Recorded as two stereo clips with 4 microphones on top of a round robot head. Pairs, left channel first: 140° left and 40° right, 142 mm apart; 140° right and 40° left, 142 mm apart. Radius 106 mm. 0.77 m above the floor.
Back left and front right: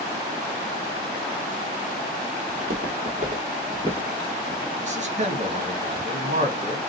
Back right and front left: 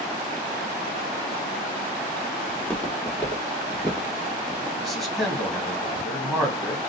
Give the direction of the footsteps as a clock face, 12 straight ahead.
2 o'clock.